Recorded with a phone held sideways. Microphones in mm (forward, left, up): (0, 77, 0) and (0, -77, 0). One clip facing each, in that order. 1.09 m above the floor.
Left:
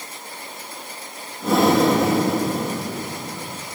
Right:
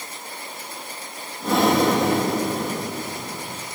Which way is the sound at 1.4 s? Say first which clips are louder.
Left 2 dB; centre (ahead or behind).